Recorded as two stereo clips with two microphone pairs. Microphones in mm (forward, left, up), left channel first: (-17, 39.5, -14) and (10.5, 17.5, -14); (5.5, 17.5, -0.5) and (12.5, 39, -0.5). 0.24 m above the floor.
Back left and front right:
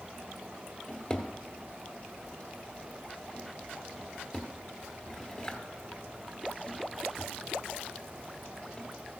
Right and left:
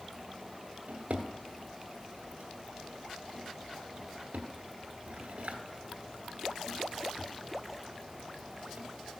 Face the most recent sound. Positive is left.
turn(degrees=80)